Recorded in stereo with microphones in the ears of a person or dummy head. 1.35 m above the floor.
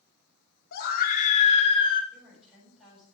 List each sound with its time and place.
0.7 s a scream: 50° left (ahead or behind), 2 m; by 2.0 s 25° left (ahead or behind), 2 m
2.1 s a woman speaking: 5° right (ahead or behind), 7 m